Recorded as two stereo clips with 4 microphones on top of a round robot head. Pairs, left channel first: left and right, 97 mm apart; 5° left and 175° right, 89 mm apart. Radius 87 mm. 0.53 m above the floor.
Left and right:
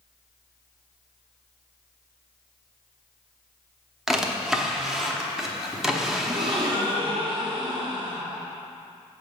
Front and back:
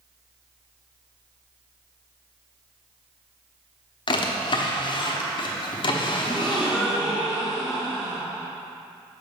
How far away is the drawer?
About 0.8 m.